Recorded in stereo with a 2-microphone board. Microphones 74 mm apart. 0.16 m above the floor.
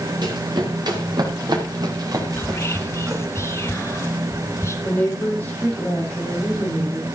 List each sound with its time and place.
0.2 s running footsteps: 70° right (ahead or behind), 4.5 m; by 3.2 s 40° right (ahead or behind), 3 m
2.4 s whispering: 35° left (ahead or behind), 1.6 m
4.8 s a woman speaking: 20° left (ahead or behind), 5 m